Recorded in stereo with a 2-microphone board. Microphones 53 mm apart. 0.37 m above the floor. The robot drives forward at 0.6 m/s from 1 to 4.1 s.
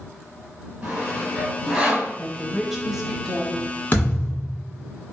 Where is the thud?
30° left (ahead or behind), 1.8 m; by 4.5 s 25° left (ahead or behind), 1.9 m.